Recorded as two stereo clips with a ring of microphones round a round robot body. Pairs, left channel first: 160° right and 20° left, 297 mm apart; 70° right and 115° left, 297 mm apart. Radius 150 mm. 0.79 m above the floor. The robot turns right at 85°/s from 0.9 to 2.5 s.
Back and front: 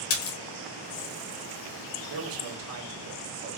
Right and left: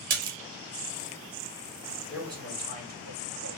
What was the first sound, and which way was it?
A splash, 170° left.